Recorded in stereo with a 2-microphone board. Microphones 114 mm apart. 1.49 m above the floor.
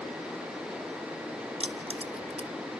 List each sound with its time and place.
1.6 s keys jangling: 55° right (ahead or behind), 0.8 m